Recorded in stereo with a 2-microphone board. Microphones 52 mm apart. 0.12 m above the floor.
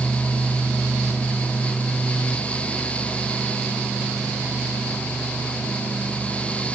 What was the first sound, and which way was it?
Only background noise.